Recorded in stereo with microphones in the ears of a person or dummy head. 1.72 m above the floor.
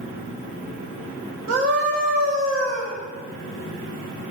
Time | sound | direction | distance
1.5 | a scream | 65° right (ahead or behind) | 2 m